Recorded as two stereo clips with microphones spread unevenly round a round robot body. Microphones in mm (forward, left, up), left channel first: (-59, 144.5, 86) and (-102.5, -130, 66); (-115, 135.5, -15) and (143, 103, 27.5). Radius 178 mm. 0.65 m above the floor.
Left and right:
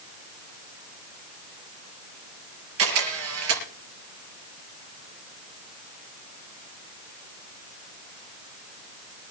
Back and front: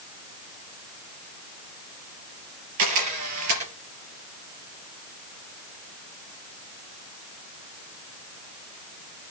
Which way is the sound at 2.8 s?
50° right.